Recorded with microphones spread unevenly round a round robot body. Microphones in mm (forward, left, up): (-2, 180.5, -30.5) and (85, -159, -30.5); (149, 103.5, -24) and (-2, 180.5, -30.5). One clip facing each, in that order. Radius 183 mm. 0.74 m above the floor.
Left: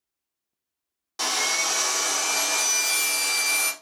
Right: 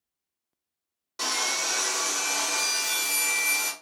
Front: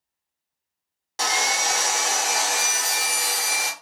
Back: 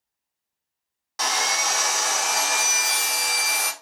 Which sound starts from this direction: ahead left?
Sawing, at 1.2 s.